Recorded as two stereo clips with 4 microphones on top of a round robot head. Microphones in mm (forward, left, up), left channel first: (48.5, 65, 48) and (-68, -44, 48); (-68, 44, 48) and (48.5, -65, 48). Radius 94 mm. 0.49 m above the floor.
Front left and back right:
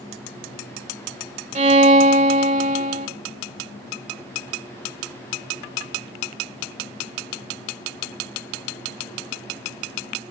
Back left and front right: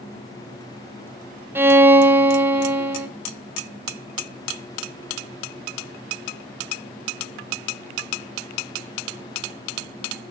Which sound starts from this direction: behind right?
A violin, at 1.6 s.